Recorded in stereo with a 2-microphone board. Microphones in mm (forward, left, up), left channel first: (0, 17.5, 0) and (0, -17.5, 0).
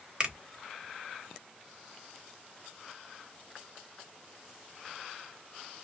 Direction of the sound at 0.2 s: 30° right (ahead or behind).